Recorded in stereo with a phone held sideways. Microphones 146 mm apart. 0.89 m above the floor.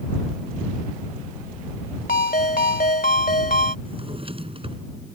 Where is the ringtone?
65° left (ahead or behind).